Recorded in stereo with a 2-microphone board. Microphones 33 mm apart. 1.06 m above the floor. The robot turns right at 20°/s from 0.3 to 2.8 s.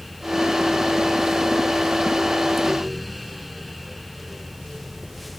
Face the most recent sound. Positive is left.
No sound to turn to.